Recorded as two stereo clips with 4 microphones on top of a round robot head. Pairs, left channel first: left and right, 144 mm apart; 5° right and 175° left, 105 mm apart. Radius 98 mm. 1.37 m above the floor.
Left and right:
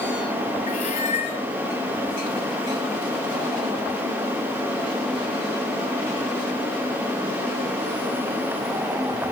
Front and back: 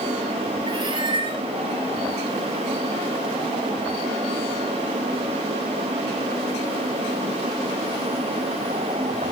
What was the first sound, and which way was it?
A cat meowing, 135° left.